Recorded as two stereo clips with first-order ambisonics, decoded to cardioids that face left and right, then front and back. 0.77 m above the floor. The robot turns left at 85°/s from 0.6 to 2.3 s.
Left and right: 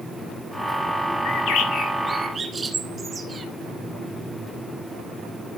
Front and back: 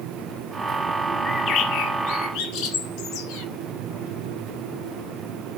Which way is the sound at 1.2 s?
70° left.